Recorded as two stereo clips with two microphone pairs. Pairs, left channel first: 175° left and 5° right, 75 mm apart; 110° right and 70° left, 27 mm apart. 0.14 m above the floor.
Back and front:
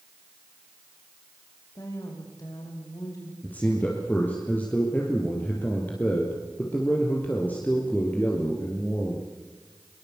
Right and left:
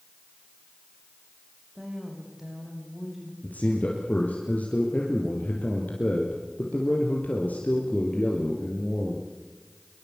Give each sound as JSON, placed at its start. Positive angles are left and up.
{"t": 1.8, "sound": "a woman speaking", "azimuth_deg": 145, "distance_m": 7.0}
{"t": 3.4, "sound": "a man speaking", "azimuth_deg": -115, "distance_m": 4.0}